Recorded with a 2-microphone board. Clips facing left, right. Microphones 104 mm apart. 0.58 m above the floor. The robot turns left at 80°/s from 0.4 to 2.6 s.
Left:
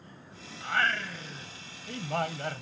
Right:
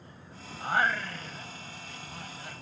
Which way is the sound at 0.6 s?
145° right.